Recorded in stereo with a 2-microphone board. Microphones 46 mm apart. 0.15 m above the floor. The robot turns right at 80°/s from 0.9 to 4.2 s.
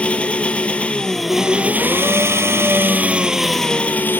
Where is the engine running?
155° left, 1.3 m; by 4.2 s 55° left, 1.3 m.